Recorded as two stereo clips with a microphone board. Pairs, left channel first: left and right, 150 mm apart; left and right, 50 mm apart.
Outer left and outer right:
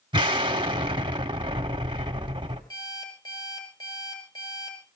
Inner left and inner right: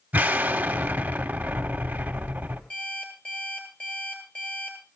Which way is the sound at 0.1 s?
35° right (ahead or behind).